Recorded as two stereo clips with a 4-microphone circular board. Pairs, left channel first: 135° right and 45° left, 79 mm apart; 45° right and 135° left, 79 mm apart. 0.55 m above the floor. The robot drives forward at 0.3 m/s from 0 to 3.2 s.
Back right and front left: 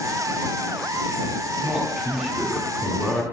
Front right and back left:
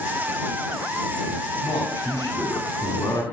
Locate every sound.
1.6 s a man speaking: 40° right, 1.8 m; by 3.2 s 55° right, 1.5 m